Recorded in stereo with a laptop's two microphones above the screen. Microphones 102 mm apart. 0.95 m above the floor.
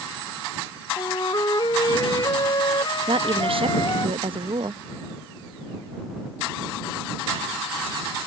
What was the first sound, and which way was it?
A flute, 45° left (ahead or behind).